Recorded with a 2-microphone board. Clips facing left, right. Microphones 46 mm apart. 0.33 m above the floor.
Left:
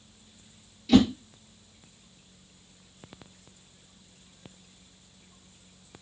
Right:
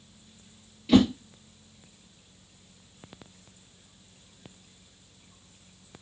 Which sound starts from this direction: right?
A whoosh, at 0.9 s.